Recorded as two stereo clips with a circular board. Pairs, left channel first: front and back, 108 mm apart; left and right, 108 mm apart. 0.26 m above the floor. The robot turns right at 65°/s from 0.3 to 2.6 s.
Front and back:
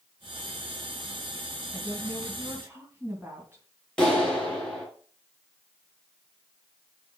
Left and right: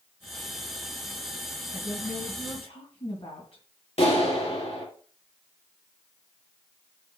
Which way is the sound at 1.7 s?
55° left.